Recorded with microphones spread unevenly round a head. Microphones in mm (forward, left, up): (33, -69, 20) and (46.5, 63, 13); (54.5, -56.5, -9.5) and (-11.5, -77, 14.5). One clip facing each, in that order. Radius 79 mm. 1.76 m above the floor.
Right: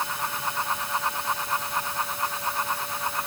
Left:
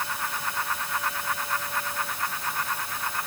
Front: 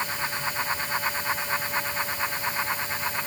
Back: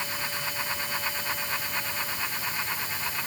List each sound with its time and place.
Only background noise.